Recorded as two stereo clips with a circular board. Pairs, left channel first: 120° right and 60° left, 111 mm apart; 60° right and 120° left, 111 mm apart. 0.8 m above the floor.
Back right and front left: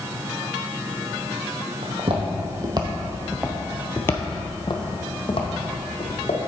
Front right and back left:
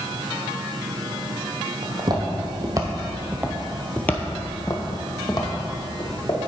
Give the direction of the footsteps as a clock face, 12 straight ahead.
9 o'clock.